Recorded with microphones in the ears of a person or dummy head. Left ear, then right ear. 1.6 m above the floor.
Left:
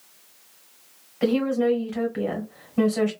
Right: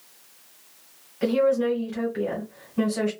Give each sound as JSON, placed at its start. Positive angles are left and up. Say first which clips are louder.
{"t": 1.2, "sound": "a woman speaking", "louder": "right 1 dB", "side_deg": 20, "distance_m": 1.3}